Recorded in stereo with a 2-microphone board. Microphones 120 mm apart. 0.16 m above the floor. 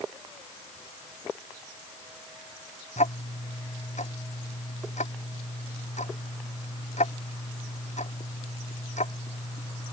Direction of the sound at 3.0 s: 80° left.